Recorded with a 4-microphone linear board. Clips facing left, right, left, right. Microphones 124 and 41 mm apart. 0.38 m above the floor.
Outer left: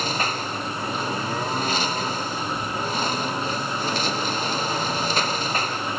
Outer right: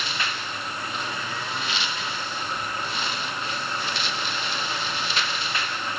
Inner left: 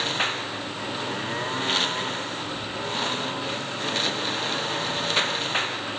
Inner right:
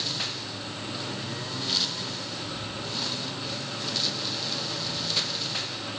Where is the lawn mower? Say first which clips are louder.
Outer left 5 dB, inner left 7 dB; 40° left (ahead or behind).